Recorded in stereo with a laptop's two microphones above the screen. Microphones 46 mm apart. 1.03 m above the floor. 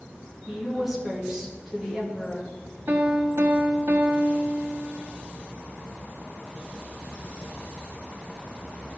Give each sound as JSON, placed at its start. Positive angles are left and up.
{"t": 0.5, "sound": "a woman speaking", "side_deg": -5, "distance_m": 1.4}
{"t": 2.9, "sound": "a piano", "side_deg": -65, "distance_m": 0.8}